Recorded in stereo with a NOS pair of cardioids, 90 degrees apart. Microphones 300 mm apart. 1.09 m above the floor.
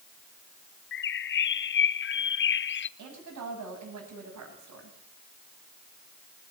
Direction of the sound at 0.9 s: 40° left.